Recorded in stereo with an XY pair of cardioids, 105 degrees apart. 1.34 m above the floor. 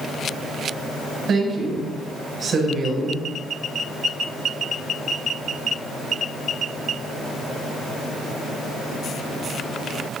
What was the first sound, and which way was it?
A woman speaking, 55° right.